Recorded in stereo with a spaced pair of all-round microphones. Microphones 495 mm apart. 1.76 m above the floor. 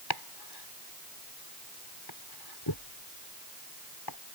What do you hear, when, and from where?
0.1 s chopping: 55° left (ahead or behind)